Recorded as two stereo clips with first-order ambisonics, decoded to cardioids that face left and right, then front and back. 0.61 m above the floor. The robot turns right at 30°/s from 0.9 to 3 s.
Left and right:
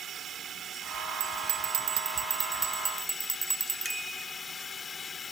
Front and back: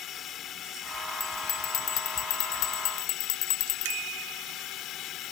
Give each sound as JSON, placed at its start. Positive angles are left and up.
{"t": 0.0, "sound": "a drone", "azimuth_deg": -40}
{"t": 1.2, "sound": "a bell", "azimuth_deg": -70}
{"t": 3.9, "sound": "a bicycle bell", "azimuth_deg": -175}